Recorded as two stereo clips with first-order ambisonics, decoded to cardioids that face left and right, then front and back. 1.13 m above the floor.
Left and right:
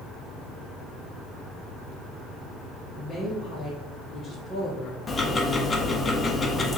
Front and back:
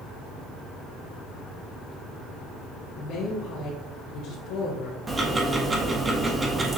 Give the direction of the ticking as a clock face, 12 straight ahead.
7 o'clock.